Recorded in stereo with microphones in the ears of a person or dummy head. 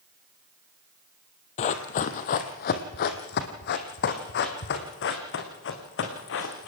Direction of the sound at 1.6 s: 40° left (ahead or behind).